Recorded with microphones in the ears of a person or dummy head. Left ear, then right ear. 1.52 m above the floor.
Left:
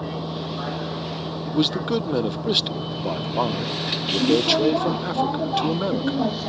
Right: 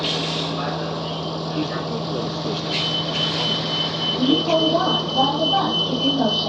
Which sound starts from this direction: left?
A man speaking, at 1.5 s.